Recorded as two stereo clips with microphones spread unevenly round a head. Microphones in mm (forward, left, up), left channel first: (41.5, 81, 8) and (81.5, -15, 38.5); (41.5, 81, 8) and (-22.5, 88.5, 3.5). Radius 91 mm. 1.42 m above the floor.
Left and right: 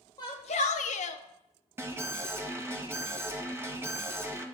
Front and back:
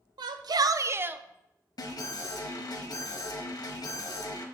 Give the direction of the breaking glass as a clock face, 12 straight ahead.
I don't hear breaking glass.